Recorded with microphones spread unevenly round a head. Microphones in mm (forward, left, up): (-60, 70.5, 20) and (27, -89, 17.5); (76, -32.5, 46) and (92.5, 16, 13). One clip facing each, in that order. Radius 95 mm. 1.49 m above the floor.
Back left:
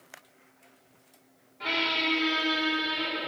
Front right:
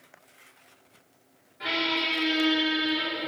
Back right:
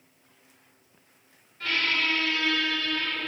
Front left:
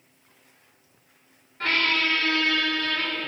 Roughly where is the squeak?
Ahead.